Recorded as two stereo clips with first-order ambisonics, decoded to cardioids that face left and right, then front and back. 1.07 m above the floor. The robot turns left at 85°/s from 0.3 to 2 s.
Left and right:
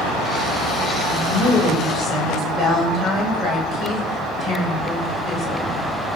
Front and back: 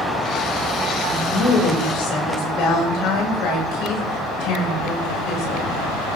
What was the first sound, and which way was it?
A woman speaking, 70° left.